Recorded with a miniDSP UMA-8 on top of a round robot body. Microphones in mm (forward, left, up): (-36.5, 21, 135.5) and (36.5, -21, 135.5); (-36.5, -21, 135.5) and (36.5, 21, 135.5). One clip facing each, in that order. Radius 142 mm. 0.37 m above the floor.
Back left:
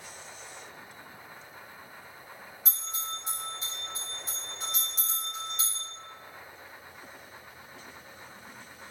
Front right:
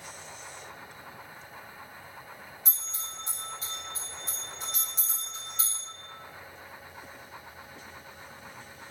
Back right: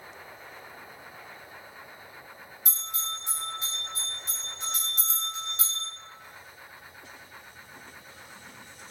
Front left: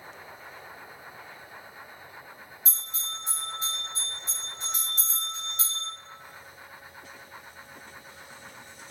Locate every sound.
2.6 s a bell: 120° right, 1.3 m